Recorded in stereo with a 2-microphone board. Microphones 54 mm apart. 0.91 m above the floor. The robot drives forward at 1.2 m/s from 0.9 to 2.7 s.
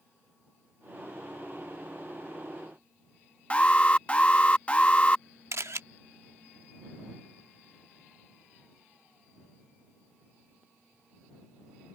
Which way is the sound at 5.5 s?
65° right (ahead or behind).